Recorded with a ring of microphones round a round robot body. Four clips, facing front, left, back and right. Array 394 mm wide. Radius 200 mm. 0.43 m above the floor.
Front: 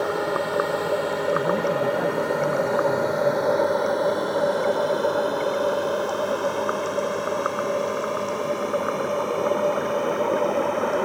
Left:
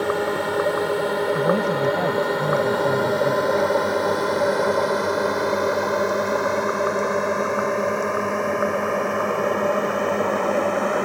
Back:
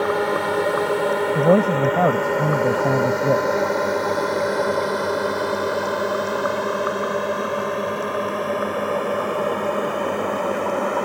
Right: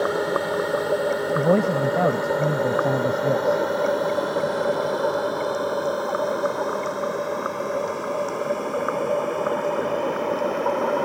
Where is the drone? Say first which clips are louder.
Even, back 3 dB; 165° left; by 11.1 s 115° left.